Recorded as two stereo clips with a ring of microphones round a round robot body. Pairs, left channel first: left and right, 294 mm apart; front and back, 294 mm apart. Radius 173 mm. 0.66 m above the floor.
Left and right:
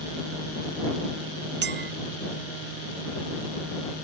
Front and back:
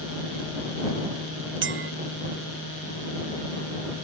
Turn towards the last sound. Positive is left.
turn(degrees=-140)